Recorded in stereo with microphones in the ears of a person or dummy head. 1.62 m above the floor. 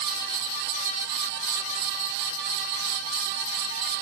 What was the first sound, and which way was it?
Only background noise.